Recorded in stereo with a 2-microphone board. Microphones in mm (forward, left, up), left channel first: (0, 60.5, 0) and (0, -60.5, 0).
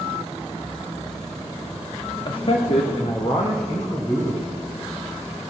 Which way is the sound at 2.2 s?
40° left (ahead or behind).